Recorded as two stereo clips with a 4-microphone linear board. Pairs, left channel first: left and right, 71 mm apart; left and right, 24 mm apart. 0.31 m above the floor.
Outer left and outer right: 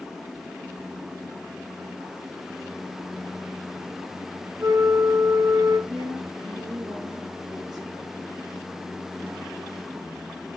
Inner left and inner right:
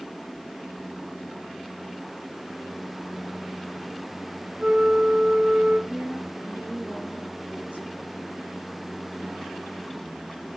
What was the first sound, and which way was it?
A flute, 60° right (ahead or behind).